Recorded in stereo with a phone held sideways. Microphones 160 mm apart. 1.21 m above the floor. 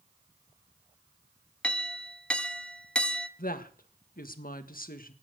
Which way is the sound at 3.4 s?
65° left (ahead or behind).